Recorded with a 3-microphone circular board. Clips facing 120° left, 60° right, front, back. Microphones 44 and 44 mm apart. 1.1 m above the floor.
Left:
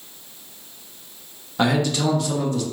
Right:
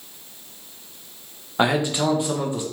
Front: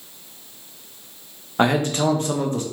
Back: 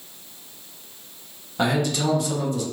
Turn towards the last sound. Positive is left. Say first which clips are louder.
# even, front 3 dB
turn(degrees=0)